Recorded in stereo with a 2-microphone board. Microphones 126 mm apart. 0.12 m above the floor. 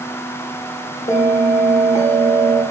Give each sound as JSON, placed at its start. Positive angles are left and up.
{"t": 1.1, "sound": "a bell", "side_deg": 70, "distance_m": 2.0}